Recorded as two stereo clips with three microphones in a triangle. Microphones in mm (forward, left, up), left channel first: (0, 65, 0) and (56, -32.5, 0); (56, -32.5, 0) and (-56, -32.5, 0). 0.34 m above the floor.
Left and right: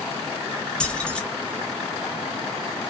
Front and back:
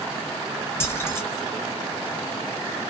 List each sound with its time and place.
0.8 s keys jangling: 45° left, 0.8 m